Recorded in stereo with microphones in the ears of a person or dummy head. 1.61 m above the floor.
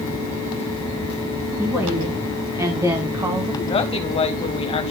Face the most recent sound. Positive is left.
turn(degrees=30)  # may be behind; listen again after turning